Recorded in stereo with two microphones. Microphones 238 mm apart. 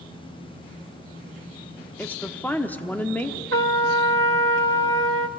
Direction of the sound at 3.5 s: 65° right (ahead or behind).